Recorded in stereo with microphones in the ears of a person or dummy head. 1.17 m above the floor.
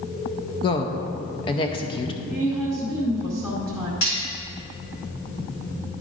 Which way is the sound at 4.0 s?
70° left (ahead or behind).